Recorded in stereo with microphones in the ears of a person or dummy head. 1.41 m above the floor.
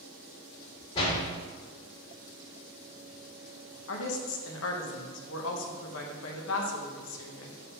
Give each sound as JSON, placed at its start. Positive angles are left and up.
{"t": 0.9, "sound": "a door slam", "side_deg": 25, "distance_m": 3.0}
{"t": 3.9, "sound": "a woman speaking", "side_deg": 80, "distance_m": 1.3}